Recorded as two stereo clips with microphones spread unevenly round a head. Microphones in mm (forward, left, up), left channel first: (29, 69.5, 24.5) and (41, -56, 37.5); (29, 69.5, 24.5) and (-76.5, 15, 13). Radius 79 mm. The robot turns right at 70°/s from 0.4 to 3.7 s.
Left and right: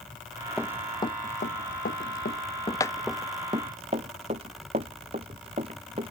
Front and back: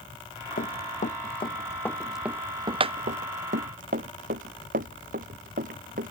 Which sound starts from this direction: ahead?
Running footsteps, at 0.6 s.